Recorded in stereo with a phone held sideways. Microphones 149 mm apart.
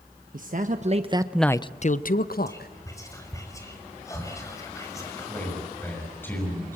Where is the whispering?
20° left (ahead or behind), 5 m.